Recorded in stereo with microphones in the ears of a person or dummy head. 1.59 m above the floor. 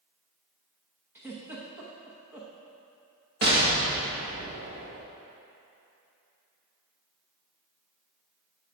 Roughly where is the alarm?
No alarm in this recording.